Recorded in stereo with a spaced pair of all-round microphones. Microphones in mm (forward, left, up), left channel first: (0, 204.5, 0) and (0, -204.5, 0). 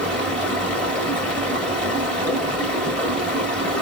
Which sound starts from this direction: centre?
Running water, at 0.0 s.